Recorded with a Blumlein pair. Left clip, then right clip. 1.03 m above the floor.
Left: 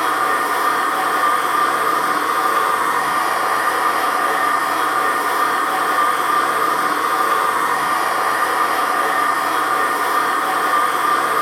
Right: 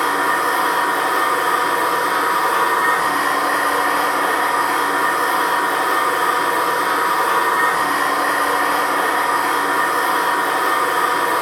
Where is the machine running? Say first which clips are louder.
Even; 15° right, 0.8 m.